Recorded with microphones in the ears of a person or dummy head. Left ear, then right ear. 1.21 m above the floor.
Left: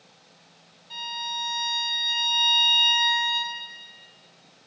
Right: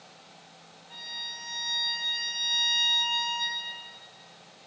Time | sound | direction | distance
0.9 | a violin | 25° left (ahead or behind) | 1.5 m